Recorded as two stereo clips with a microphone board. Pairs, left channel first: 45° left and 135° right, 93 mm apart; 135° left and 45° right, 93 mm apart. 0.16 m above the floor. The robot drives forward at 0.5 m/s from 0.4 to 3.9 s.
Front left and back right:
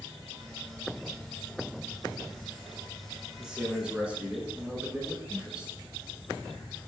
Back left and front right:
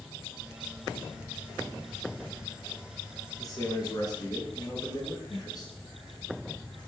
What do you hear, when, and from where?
3.4 s a man speaking: 140° left, 1.3 m; by 5.7 s 150° left, 1.5 m